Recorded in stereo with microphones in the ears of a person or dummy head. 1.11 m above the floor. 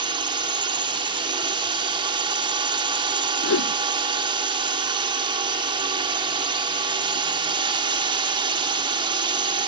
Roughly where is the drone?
Right.